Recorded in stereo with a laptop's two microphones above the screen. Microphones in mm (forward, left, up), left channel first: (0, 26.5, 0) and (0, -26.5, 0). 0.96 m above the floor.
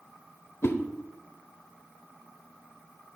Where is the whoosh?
55° left (ahead or behind), 1.0 m.